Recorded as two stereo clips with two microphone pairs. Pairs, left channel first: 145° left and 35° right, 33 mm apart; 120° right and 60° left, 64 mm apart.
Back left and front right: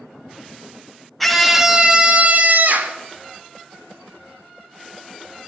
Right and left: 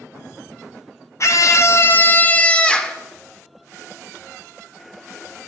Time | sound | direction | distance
1.2 | a scream | 130° right | 1.1 m